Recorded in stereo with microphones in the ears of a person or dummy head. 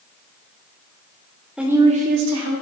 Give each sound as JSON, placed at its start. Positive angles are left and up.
{"t": 1.6, "sound": "a woman speaking", "side_deg": 0, "distance_m": 0.5}